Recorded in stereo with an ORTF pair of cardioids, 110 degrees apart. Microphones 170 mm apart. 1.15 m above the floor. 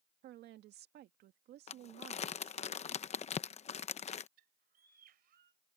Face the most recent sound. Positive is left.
turn(degrees=-60)